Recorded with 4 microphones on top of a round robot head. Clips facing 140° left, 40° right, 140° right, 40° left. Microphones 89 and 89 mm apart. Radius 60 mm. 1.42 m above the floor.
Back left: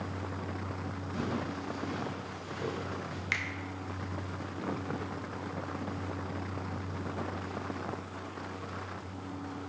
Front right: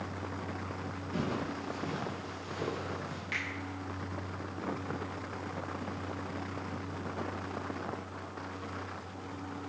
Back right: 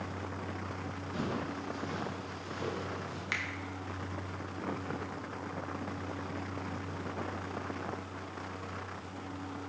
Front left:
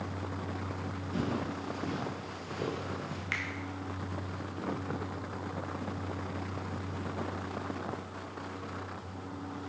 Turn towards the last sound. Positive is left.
turn(degrees=150)